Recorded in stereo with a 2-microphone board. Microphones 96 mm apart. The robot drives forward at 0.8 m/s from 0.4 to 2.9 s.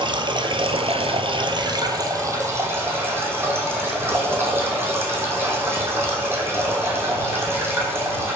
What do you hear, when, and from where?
0.0 s running water: 55° right (ahead or behind), 0.9 m; by 8.4 s 25° right (ahead or behind), 1.8 m